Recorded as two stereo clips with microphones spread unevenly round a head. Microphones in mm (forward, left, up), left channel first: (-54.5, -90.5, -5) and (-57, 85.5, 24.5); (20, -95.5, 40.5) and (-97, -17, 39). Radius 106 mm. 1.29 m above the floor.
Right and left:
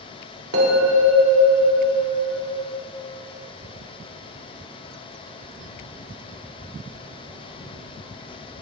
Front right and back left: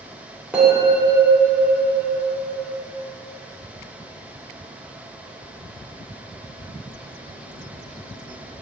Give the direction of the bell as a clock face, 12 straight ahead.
10 o'clock.